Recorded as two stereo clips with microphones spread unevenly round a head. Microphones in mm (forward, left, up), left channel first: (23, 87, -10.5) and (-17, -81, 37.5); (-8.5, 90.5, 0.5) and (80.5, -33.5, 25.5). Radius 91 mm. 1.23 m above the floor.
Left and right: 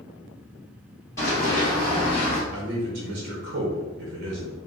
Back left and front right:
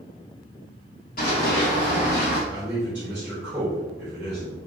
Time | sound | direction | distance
1.2 | running footsteps | 160° left | 1.7 m
2.5 | a man speaking | 140° right | 0.9 m